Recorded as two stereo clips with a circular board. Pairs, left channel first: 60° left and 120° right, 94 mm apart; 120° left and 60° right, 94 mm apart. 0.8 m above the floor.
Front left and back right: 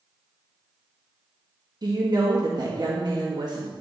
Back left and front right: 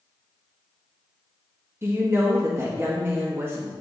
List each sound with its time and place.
1.8 s a woman speaking: 115° right, 1.4 m